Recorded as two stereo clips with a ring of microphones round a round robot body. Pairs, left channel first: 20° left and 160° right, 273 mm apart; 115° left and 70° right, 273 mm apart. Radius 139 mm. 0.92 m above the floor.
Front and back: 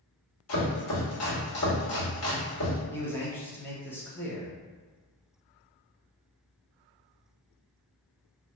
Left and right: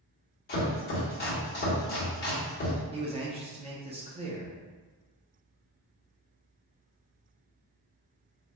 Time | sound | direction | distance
0.5 | chopping | 60° left | 1.5 m
2.9 | a man speaking | 50° right | 0.8 m